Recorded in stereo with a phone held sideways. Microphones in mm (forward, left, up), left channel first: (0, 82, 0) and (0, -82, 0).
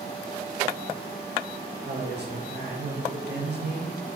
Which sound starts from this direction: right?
A man speaking, at 1.9 s.